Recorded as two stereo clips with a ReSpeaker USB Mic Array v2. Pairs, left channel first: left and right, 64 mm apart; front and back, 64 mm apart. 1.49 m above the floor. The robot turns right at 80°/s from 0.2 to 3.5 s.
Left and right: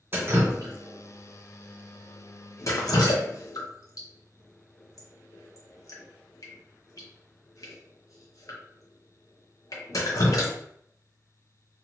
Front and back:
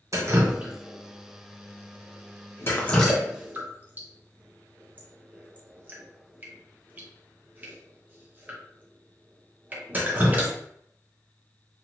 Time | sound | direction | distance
0.1 | dripping | 145° right | 0.7 m